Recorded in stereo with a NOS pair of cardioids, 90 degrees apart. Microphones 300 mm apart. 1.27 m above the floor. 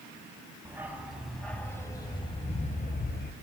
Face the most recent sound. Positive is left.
turn(degrees=35)